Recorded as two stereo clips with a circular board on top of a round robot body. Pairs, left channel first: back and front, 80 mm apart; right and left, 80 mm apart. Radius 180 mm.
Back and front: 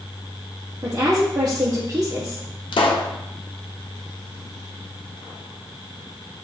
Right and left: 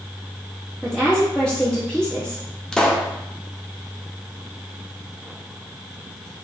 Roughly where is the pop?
Behind.